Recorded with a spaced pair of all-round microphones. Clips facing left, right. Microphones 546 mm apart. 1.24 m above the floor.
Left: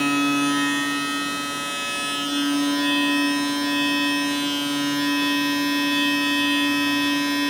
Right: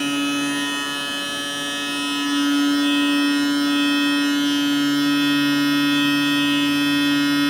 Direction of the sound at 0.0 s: 70° right (ahead or behind).